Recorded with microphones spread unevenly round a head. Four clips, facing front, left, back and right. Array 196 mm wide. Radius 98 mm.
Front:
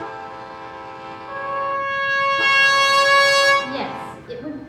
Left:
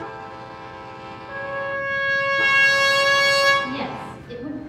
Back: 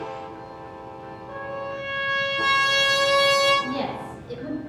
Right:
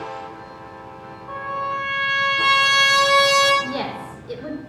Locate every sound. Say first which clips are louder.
1.3 s a trumpet: right 2 dB, front 8 dB; 50° right, 3 m
3.6 s a woman speaking: right 1 dB, front 2 dB; 55° right, 2.5 m